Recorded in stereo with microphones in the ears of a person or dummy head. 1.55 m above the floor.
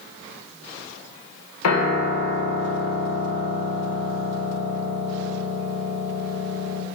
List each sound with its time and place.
1.6 s a piano: 80° left, 0.7 m